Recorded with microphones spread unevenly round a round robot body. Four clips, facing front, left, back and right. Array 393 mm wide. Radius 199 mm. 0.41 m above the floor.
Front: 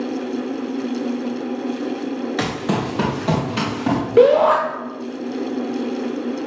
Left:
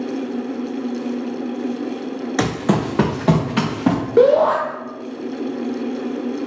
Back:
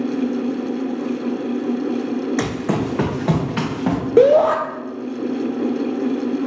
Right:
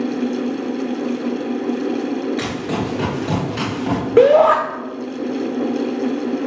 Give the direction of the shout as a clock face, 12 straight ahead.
5 o'clock.